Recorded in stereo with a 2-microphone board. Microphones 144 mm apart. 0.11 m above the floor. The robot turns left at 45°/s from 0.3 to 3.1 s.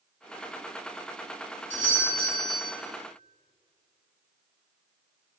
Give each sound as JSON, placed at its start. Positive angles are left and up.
{"t": 1.7, "sound": "a doorbell", "side_deg": 15, "distance_m": 2.0}